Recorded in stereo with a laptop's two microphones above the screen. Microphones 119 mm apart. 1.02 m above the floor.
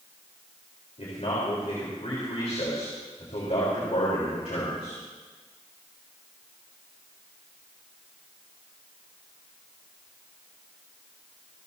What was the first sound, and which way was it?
A man speaking, 65° left (ahead or behind).